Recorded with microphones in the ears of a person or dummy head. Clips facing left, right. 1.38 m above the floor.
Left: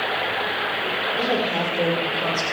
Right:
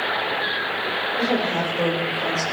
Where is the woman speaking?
5° left (ahead or behind), 3.5 m; by 2.4 s 15° left (ahead or behind), 4.5 m.